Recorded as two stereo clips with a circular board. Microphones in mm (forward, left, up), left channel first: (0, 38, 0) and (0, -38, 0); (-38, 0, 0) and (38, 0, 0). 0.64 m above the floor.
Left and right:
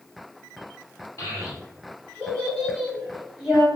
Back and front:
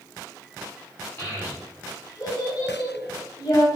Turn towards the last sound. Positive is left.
turn(degrees=-170)